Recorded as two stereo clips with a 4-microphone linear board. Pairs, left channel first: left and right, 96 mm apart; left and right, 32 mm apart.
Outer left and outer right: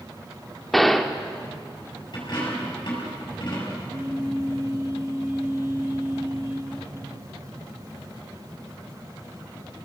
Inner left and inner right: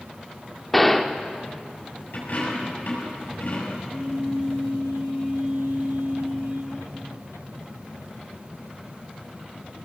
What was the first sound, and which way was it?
A gunshot, 5° left (ahead or behind).